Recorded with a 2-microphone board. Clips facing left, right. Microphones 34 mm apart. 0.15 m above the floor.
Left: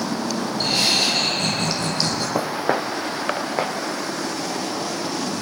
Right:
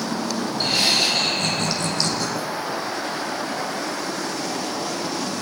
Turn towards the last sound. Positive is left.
turn(degrees=75)  # may be behind; listen again after turning